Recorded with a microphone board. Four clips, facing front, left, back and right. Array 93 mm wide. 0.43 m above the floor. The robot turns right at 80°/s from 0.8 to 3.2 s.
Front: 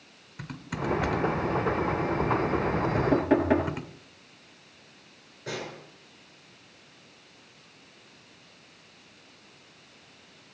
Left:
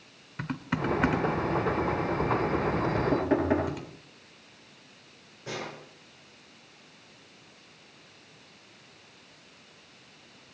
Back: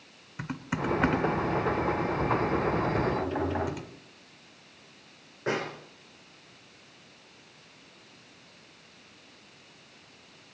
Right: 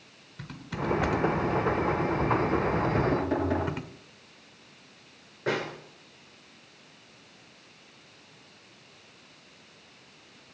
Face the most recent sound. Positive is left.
turn(degrees=-135)